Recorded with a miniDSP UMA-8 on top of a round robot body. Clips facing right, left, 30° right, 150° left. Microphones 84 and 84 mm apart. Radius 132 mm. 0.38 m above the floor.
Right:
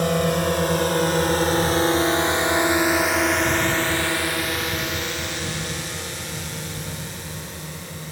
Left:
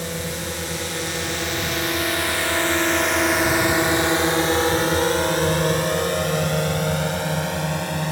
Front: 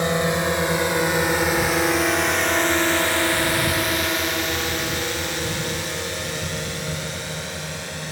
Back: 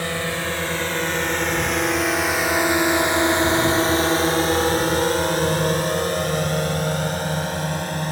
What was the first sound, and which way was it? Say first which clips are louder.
A drone: right 8 dB, front 4 dB; 100° right.